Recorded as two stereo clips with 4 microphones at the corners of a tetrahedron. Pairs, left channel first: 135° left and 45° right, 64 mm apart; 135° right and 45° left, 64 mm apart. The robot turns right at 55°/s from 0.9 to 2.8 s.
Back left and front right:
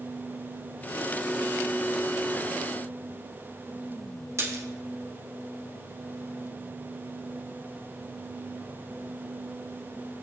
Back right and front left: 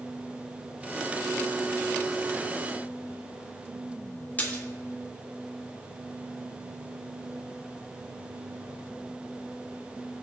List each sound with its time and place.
4.4 s a splash: 75° right, 1.7 m